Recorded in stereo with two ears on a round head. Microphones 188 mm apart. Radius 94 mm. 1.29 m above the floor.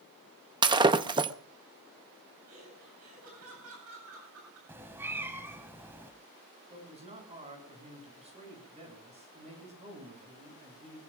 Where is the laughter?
75° right (ahead or behind), 9 m.